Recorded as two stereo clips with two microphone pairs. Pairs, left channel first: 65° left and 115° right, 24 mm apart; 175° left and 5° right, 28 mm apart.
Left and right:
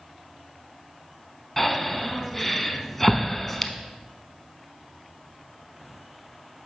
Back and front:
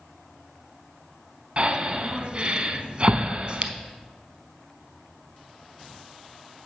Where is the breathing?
15° right, 0.5 m.